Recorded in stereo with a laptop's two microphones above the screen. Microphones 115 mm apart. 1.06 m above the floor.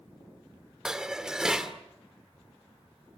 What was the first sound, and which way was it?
Dishes clattering, 5° right (ahead or behind).